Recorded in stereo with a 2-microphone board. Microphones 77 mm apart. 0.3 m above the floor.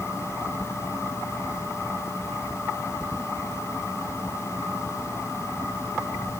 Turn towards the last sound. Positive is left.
No sound to turn to.